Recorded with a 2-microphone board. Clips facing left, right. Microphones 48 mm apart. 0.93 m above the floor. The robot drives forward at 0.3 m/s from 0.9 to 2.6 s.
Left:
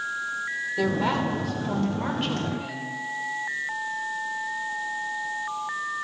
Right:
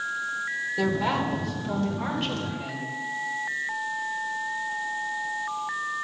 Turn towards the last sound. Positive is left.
turn(degrees=5)  # may be behind; listen again after turning